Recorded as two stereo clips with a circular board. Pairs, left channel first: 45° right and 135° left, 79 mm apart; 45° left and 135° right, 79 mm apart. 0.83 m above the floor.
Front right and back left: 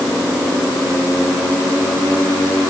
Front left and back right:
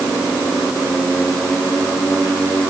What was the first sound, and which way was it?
Only background noise.